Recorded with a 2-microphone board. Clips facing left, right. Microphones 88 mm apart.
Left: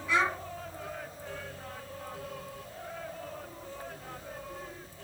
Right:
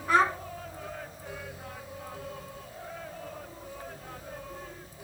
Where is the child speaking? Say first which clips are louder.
Right 5 dB; 55° right (ahead or behind), 1.4 m.